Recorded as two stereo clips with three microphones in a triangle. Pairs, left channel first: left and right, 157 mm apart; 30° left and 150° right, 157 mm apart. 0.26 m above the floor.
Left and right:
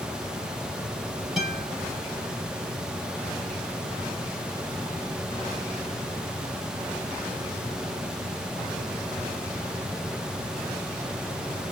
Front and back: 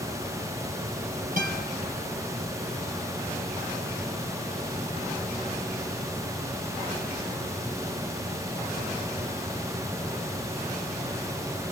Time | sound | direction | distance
1.4 | a guitar | straight behind | 5.5 m